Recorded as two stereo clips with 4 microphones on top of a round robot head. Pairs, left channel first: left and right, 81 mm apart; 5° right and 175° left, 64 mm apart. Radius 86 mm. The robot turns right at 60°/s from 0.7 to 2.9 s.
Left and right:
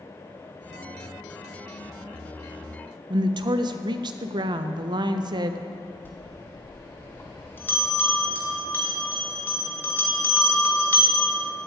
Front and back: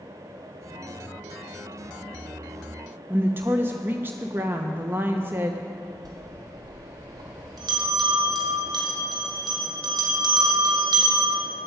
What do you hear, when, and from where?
3.1 s a woman speaking: 120° right, 0.8 m
6.0 s a bell: 160° left, 2 m